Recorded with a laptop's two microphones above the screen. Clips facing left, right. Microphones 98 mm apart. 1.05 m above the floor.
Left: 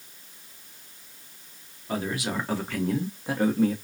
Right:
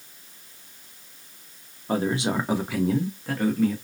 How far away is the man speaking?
About 1.0 m.